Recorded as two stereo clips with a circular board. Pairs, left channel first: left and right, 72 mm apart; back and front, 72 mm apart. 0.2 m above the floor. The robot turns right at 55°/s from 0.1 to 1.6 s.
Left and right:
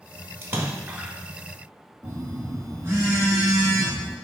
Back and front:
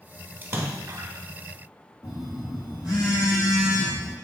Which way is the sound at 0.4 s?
50° right.